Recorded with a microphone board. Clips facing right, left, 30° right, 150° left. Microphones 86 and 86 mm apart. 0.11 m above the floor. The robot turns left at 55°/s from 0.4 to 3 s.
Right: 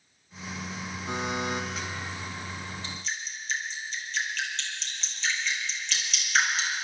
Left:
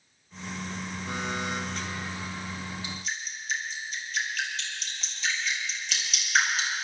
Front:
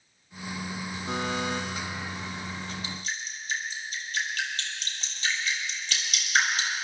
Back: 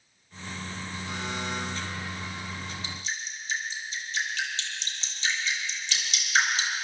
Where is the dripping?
15° left, 3 m; by 6.7 s 5° left, 3 m.